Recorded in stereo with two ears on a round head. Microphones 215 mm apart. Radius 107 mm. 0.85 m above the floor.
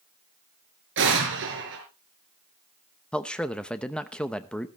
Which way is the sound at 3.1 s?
5° left (ahead or behind).